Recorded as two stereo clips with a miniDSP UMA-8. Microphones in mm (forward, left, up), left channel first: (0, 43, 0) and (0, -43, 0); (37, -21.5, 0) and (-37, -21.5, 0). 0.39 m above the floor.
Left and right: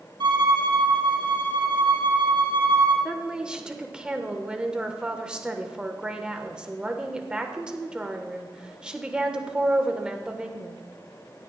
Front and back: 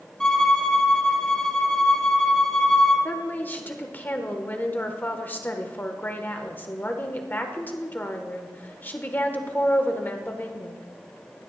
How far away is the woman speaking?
About 0.9 m.